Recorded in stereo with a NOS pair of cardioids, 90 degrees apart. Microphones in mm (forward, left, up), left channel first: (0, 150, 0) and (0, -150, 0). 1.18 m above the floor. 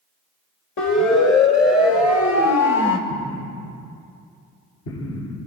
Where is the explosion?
65° left, 9.5 m.